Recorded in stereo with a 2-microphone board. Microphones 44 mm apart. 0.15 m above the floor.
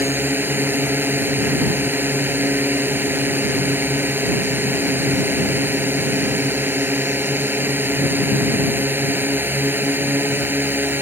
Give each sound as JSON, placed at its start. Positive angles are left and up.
{"t": 0.0, "sound": "a drone", "side_deg": -50}